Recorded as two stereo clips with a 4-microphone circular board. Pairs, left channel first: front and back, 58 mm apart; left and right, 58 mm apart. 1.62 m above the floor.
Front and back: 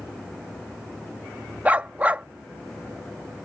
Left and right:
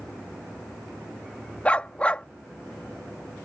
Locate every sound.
1.6 s a dog barking: 145° left